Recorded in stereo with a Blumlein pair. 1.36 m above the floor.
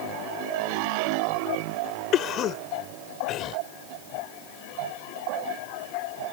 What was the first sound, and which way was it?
A cough, 30° left.